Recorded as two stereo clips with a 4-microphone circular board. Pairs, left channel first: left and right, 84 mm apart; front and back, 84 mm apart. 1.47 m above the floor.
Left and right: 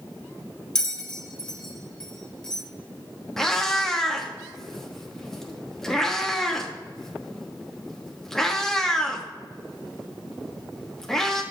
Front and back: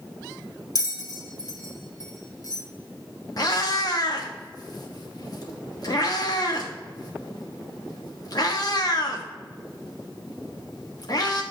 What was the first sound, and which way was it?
A bell, 10° left.